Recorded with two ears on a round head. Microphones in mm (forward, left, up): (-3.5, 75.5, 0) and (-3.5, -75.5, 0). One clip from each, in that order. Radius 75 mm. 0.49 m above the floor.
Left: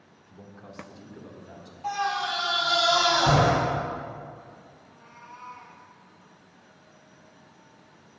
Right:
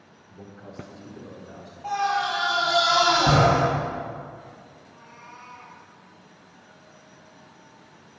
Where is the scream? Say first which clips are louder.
Right 3 dB; 60° left (ahead or behind), 2.5 m.